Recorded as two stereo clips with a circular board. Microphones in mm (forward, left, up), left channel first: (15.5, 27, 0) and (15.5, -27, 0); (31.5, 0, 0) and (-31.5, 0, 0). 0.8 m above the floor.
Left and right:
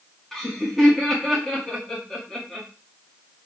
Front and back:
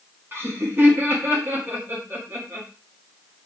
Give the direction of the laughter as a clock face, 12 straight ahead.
6 o'clock.